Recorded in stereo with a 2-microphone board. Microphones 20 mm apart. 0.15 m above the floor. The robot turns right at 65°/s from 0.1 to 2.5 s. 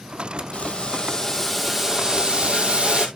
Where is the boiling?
110° left, 1.9 m; by 3.1 s 120° right, 1.9 m.